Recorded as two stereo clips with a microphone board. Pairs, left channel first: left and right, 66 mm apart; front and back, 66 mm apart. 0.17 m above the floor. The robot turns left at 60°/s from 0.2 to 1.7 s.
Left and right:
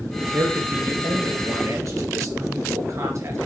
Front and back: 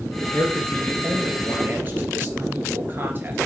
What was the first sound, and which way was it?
A man speaking, 40° right.